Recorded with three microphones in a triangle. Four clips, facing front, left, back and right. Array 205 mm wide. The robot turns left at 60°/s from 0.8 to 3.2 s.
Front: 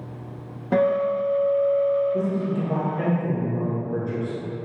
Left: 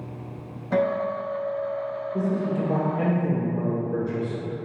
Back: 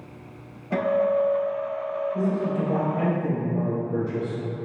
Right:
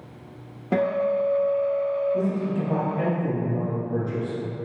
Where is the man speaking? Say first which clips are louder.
Even, even; 10° left, 1.5 m; by 4.4 s 55° right, 1.5 m.